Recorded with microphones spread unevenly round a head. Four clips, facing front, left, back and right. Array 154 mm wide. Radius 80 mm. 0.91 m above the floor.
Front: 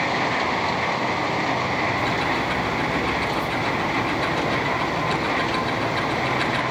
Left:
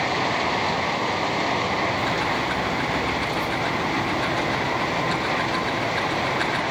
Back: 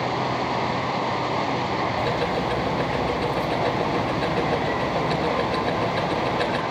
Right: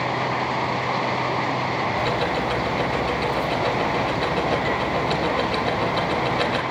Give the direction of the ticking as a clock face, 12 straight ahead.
4 o'clock.